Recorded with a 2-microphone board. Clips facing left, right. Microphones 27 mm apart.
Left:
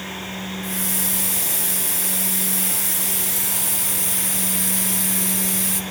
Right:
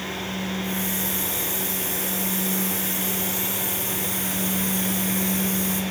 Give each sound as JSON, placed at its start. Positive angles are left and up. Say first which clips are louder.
{"t": 0.6, "sound": "a hiss", "louder": "even", "side_deg": 65, "distance_m": 0.8}